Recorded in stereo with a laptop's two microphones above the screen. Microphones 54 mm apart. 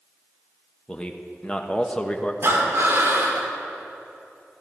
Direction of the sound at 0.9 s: 20° left (ahead or behind).